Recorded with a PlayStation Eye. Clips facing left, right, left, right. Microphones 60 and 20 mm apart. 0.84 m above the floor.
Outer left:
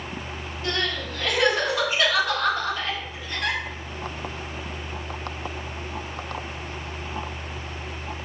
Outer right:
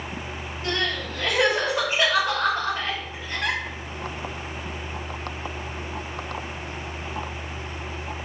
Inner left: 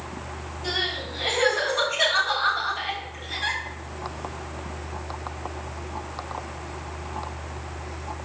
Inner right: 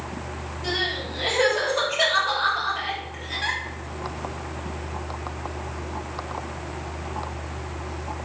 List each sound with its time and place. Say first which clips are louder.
0.6 s crying: outer right 1 dB, inner right 1 dB; 30° right (ahead or behind), 5.5 m